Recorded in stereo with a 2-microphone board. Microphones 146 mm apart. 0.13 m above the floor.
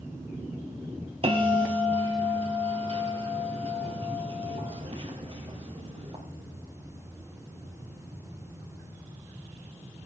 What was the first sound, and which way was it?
A bell, 40° right (ahead or behind).